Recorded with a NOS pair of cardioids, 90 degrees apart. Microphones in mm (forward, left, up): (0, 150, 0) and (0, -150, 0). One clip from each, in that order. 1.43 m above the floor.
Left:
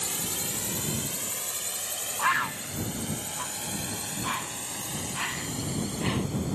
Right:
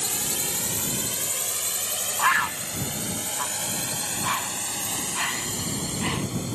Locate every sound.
0.0 s a drone: 30° right; by 6.5 s 50° right
2.2 s a bird: 20° right